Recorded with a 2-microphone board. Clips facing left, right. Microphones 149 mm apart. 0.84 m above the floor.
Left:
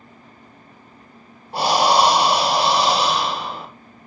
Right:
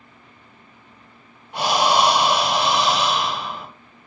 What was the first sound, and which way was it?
Breathing, 35° left (ahead or behind).